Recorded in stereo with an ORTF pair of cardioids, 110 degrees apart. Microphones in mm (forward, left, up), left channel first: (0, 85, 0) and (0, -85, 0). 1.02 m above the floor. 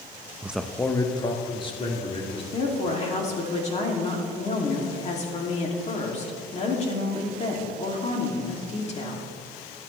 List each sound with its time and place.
0.4 s a man speaking: 10° right, 0.6 m; by 2.4 s 35° left, 3 m
2.5 s a woman speaking: 40° left, 2.5 m